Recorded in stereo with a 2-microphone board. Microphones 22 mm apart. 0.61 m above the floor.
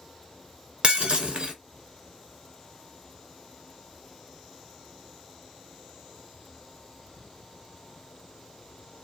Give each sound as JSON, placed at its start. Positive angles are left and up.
{"t": 0.8, "sound": "breaking glass", "side_deg": -50, "distance_m": 0.8}